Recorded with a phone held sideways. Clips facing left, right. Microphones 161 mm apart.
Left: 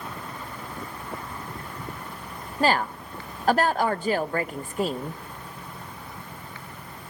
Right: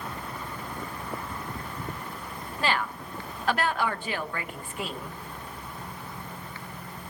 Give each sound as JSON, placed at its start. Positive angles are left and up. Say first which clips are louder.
{"t": 2.6, "sound": "a woman speaking", "louder": "left 6 dB", "side_deg": 40, "distance_m": 0.9}